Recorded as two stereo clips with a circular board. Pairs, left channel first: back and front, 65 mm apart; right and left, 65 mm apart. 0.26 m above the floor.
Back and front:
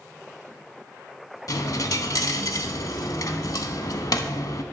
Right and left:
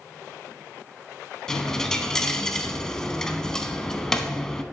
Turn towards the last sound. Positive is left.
turn(degrees=-170)